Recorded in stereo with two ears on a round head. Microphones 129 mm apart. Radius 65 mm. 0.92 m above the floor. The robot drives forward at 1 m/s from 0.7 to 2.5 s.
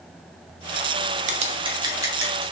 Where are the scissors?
55° right (ahead or behind), 0.5 m; by 2.4 s 20° right (ahead or behind), 1.4 m.